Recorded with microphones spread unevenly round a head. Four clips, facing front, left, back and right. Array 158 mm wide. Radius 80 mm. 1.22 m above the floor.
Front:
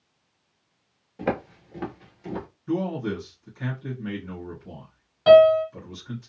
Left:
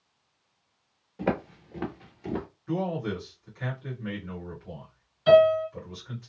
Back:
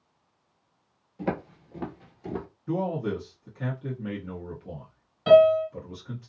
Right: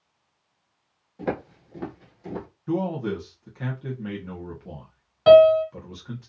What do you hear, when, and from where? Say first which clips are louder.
1.2 s footsteps: left 1 dB, front 3 dB; 30° left, 1.3 m; by 2.5 s 145° left, 1.3 m
2.7 s a man speaking: right 4 dB, front 1 dB; 125° right, 1.2 m
5.3 s a piano: right 5 dB, front 3 dB; 75° right, 1.5 m